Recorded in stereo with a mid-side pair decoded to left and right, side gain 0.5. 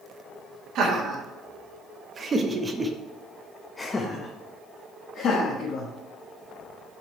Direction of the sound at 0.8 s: 65° right.